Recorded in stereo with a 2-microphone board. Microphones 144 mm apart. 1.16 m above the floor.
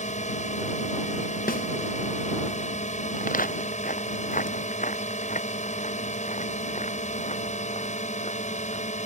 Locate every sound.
0.0 s a drone: 55° left (ahead or behind)
1.5 s a snare drum: 85° left
3.2 s footsteps: 75° left (ahead or behind); by 8.8 s 50° left (ahead or behind)